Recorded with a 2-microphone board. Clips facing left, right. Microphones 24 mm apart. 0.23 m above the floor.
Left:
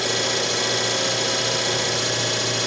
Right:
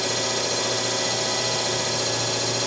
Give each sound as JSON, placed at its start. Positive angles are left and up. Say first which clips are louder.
{"t": 0.0, "sound": "an engine running", "louder": "left 2 dB", "side_deg": 35, "distance_m": 1.0}